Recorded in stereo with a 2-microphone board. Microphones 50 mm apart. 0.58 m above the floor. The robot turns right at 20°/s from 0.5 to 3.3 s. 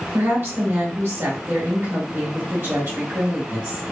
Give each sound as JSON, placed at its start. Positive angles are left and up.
{"t": 0.1, "sound": "a woman speaking", "azimuth_deg": -115, "distance_m": 1.6}